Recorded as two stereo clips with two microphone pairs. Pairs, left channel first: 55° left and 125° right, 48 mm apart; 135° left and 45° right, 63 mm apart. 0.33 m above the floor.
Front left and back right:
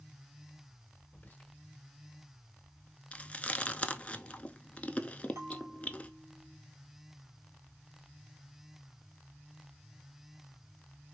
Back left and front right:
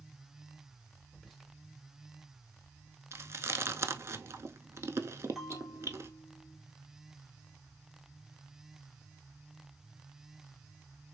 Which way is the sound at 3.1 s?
5° right.